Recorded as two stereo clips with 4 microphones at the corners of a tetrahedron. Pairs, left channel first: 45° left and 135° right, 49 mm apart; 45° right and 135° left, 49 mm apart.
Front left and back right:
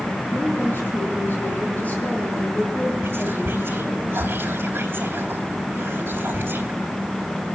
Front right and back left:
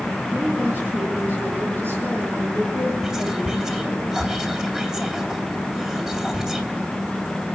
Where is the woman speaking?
80° left, 4.5 m; by 4.0 s 120° left, 6.5 m.